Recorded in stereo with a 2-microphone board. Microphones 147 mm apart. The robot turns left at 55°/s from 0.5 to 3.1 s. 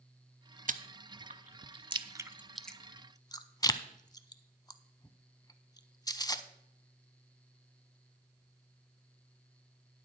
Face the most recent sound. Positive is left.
turn(degrees=25)  # may be behind; listen again after turning